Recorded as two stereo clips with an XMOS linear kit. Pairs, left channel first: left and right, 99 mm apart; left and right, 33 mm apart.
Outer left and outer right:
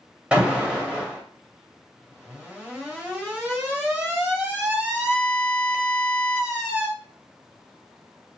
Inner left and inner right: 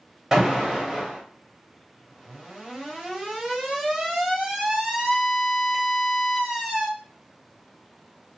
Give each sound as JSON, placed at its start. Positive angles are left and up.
{"t": 0.3, "sound": "an alarm", "side_deg": -10, "distance_m": 1.3}